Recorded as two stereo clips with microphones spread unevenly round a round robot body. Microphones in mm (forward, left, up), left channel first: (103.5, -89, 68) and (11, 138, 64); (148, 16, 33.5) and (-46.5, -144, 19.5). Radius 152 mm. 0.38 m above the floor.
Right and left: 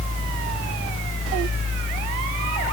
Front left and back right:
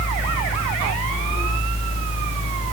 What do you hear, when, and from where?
Only background noise.